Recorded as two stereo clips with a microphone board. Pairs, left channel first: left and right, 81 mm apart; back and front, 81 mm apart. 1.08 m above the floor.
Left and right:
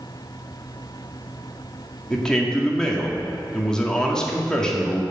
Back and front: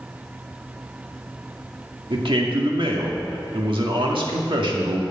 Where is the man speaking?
10° left, 2 m.